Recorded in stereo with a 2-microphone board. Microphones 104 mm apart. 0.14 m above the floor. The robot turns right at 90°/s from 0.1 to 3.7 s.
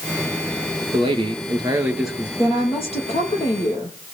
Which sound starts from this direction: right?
A man speaking, at 0.9 s.